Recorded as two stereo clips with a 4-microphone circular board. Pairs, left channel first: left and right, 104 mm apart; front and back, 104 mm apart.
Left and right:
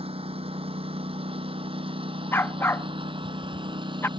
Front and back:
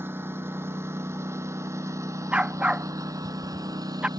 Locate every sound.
0.0 s a lawn mower: 110° right; by 4.2 s 130° right
2.3 s a dog barking: 120° left